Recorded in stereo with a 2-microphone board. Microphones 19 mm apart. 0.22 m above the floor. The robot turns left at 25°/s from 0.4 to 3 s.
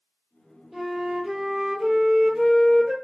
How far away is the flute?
About 1.6 m.